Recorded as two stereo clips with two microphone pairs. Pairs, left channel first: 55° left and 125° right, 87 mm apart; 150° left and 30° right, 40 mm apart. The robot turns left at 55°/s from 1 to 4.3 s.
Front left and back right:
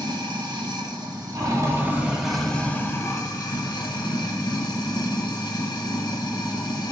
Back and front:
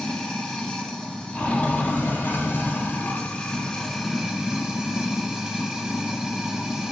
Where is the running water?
140° right, 0.8 m; by 6.9 s 35° left, 0.8 m.